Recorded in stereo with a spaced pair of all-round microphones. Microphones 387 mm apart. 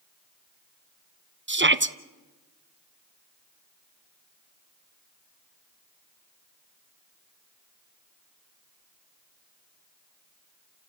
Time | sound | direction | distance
1.5 | a shout | 30° right (ahead or behind) | 0.8 m